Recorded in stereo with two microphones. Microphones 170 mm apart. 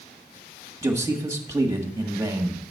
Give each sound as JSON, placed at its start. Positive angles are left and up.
{"t": 0.8, "sound": "a man speaking", "side_deg": -15, "distance_m": 1.6}